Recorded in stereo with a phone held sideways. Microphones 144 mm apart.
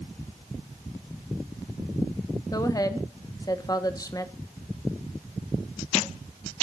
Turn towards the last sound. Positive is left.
turn(degrees=25)  # may be behind; listen again after turning